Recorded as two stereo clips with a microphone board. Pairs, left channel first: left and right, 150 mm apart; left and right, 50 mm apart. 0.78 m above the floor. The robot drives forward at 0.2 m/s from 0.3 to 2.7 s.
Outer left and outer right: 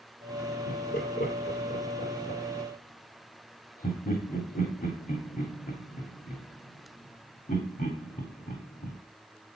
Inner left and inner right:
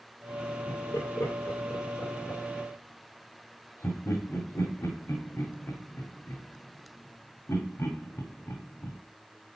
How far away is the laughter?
About 1.8 m.